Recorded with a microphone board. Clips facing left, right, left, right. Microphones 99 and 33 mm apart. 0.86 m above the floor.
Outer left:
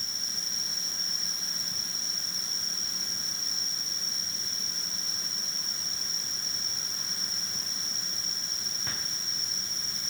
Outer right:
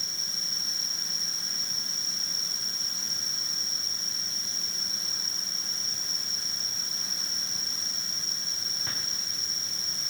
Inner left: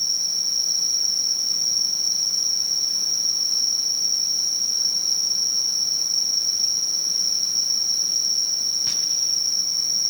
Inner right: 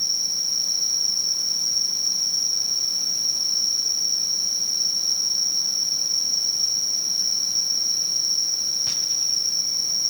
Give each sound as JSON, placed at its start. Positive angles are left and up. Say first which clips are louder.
{"t": 0.0, "sound": "an insect", "louder": "even, inner left 1 dB", "side_deg": -80, "distance_m": 4.0}